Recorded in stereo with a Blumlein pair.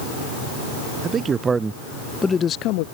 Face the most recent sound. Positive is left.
turn(degrees=50)